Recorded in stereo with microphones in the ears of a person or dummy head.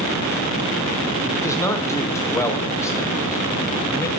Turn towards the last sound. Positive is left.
turn(degrees=15)  # may be behind; listen again after turning